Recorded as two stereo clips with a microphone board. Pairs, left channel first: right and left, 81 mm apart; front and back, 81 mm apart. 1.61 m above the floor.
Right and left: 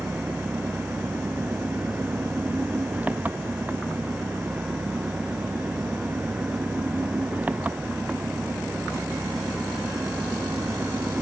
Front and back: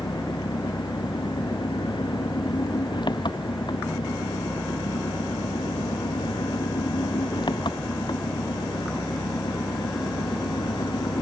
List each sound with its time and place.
0.0 s an engine running: 20° left